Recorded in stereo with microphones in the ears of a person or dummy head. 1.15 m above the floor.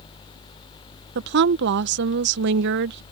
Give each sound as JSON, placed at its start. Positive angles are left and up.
{"t": 1.1, "sound": "a woman speaking", "side_deg": -50}